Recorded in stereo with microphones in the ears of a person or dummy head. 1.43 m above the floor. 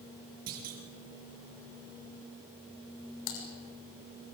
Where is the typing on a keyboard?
70° left (ahead or behind), 6 m.